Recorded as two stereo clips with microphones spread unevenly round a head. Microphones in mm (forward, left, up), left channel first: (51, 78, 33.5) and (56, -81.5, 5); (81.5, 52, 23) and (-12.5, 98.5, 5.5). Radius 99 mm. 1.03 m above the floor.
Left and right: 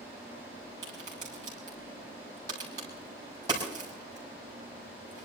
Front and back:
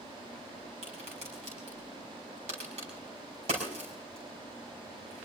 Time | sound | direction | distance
0.8 | a crack | 160° right | 5 m